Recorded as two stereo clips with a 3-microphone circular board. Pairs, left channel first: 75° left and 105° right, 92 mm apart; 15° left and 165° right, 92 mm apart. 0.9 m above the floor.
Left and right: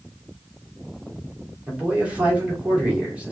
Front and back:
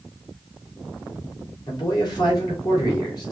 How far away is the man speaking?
About 3 m.